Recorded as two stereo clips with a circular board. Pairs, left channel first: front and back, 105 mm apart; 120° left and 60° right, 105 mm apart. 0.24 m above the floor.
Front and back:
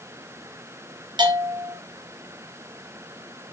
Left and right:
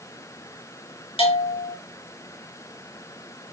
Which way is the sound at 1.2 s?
140° left.